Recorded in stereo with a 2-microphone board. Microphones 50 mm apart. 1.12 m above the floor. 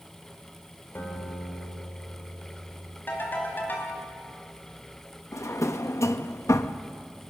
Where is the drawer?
75° left (ahead or behind), 0.8 m.